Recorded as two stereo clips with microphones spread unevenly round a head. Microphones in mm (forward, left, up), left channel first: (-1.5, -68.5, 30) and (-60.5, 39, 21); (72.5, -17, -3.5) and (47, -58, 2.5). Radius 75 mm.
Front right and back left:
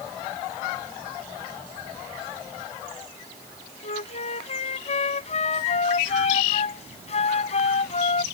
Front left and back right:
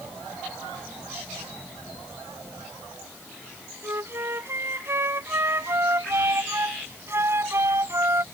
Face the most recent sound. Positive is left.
turn(degrees=-95)